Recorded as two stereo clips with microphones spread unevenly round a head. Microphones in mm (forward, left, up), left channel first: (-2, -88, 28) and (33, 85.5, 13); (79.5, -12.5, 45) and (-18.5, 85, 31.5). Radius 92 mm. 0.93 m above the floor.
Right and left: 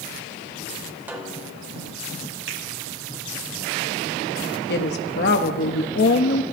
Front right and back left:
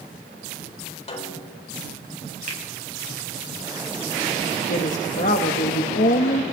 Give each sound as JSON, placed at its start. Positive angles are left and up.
{"t": 1.1, "sound": "a snare drum", "azimuth_deg": 0, "distance_m": 5.0}
{"t": 2.5, "sound": "a finger snap", "azimuth_deg": 105, "distance_m": 7.5}
{"t": 4.7, "sound": "a woman speaking", "azimuth_deg": -80, "distance_m": 1.4}